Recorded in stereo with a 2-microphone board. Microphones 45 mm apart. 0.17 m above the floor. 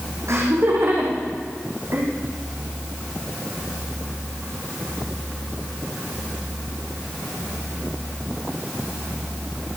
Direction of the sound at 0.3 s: 70° right (ahead or behind).